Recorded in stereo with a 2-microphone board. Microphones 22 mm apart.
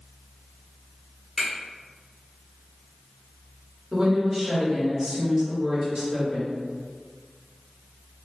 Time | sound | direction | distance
1.4 | a finger snap | 20° right (ahead or behind) | 1.2 m
3.9 | a woman speaking | 30° right (ahead or behind) | 1.3 m